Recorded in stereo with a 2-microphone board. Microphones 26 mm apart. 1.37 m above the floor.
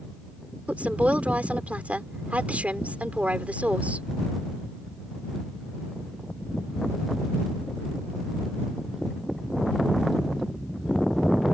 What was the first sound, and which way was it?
A woman speaking, 85° right.